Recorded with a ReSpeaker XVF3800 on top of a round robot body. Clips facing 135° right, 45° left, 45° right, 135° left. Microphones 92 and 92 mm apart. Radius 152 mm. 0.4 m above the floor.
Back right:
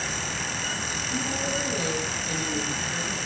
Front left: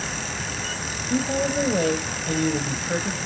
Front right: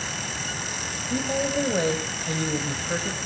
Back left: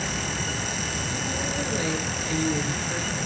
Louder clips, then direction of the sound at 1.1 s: Front left 8 dB, front right 8 dB; 5° left.